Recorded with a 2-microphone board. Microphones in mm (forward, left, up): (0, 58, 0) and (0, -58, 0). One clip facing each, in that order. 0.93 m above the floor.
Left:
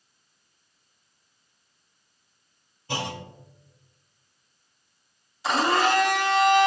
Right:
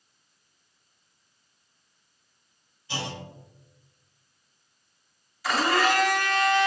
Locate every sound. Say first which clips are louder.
2.9 s a clunk: left 3 dB; 55° left (ahead or behind), 1.0 m
5.4 s a blender: left 1 dB; 25° left (ahead or behind), 1.0 m